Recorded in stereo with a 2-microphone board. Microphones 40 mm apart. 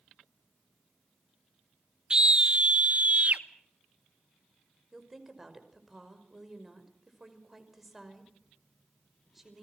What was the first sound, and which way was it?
A scream, 20° right (ahead or behind).